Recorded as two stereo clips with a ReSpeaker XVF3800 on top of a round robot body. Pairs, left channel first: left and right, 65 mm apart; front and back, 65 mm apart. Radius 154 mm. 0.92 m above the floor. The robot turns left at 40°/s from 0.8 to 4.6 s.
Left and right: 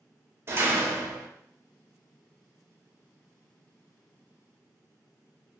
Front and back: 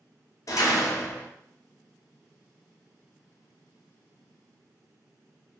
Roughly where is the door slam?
Ahead right.